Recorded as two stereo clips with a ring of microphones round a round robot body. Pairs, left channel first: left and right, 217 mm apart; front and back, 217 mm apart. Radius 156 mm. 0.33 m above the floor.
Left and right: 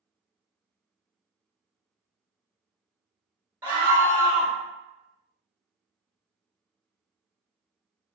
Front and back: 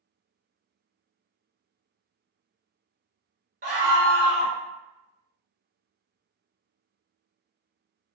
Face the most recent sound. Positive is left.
turn(degrees=-165)